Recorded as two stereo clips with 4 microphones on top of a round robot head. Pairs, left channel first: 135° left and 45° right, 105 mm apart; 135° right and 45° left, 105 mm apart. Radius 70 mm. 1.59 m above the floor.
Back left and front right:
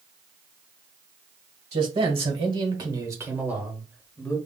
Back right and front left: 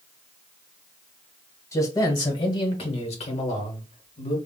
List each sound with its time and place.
1.7 s a man speaking: 70° right, 1.5 m; by 4.4 s 150° right, 1.2 m